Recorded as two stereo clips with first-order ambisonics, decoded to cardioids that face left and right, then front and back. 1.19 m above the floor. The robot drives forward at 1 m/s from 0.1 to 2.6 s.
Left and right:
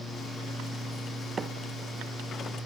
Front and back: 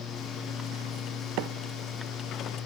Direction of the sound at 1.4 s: 160° right.